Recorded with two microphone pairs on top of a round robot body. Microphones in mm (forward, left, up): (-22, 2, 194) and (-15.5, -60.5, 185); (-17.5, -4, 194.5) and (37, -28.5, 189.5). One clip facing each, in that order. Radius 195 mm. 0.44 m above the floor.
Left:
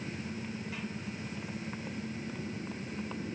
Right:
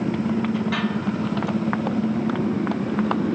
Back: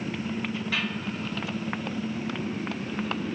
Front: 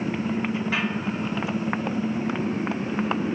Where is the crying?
I don't hear crying.